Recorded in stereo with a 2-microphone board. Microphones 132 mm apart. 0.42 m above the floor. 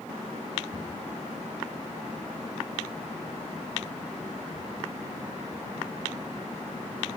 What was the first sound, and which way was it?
A cupboard door, 45° right (ahead or behind).